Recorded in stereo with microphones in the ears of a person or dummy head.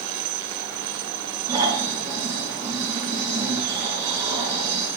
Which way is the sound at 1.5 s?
15° right (ahead or behind).